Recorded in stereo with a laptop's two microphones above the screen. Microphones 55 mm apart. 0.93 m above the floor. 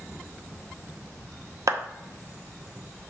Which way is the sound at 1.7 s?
75° right (ahead or behind).